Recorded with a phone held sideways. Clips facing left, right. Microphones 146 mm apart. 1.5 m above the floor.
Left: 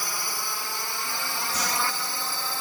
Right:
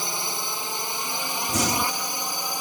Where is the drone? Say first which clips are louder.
Right 3 dB; 25° right (ahead or behind); by 2.6 s 15° right (ahead or behind).